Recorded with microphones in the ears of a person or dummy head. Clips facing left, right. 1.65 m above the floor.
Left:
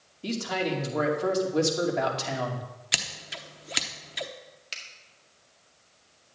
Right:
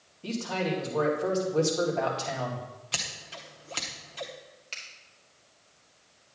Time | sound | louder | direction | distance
0.2 | a man speaking | left 1 dB | 20° left (ahead or behind) | 2.5 m
2.9 | scissors | left 1 dB | 20° left (ahead or behind) | 0.8 m
4.7 | a finger snap | left 1 dB | 15° left (ahead or behind) | 1.9 m